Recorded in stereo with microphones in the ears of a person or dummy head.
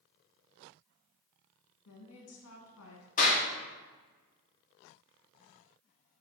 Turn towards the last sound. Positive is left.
turn(degrees=45)  # may be behind; listen again after turning